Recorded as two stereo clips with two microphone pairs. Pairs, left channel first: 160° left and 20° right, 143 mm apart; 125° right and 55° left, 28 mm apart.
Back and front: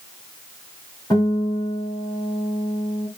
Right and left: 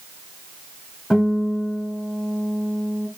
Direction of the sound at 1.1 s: 135° right.